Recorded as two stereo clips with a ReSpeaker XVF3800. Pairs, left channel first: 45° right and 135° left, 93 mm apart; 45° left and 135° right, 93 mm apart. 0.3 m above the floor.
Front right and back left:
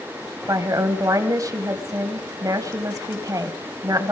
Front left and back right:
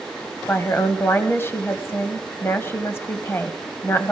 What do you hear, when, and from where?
0.5 s a woman speaking: 100° left, 1.5 m